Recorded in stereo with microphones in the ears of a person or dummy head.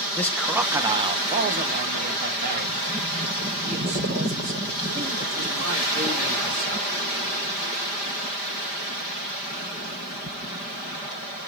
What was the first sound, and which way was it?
A man speaking, 5° left (ahead or behind).